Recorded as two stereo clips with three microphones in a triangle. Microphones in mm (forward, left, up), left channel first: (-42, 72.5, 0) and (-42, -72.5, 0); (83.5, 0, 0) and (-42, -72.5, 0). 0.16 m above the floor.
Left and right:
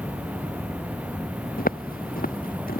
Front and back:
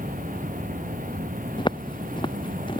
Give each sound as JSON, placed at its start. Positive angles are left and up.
{"t": 0.0, "sound": "an insect", "azimuth_deg": -170}
{"t": 1.6, "sound": "footsteps", "azimuth_deg": 90}